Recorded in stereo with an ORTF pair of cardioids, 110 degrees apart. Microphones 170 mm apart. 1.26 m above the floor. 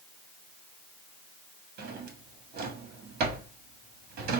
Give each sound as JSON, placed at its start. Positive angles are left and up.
{"t": 1.8, "sound": "a drawer", "azimuth_deg": -65, "distance_m": 1.4}